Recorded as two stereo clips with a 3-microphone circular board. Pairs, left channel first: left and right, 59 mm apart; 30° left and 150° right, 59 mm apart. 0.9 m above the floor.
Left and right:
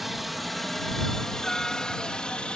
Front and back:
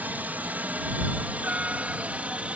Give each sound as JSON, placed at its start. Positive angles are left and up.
{"t": 0.0, "sound": "a helicopter", "azimuth_deg": -175}